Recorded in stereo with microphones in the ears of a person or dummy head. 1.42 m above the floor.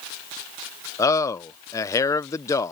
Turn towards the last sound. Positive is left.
turn(degrees=10)  # may be behind; listen again after turning